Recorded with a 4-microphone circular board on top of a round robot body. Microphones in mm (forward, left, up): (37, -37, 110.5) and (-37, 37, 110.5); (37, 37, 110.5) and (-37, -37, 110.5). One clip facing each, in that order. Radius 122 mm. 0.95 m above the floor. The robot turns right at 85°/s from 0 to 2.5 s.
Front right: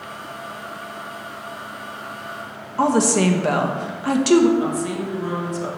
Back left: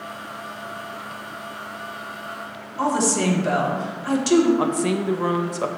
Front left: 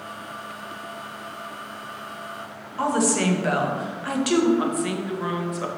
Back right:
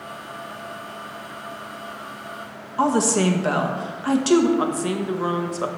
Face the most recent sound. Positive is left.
turn(degrees=165)